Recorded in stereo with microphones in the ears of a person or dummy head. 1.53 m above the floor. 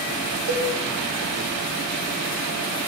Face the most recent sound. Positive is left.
turn(degrees=-55)  # may be behind; listen again after turning